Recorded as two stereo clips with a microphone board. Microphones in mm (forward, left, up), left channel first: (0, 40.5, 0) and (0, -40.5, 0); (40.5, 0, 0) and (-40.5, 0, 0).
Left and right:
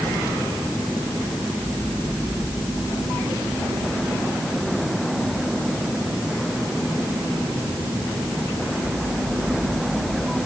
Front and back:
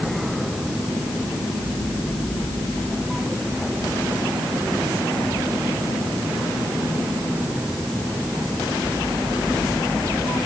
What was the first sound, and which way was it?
Only background noise.